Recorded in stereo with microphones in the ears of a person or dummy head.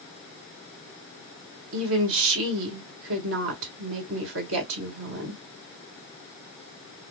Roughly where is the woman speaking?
Right.